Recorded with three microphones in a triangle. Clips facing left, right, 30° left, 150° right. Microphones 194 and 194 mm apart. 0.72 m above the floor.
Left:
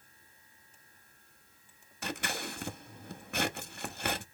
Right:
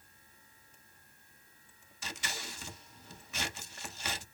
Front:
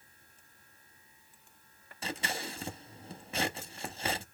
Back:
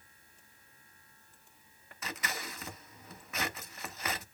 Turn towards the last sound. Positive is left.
turn(degrees=85)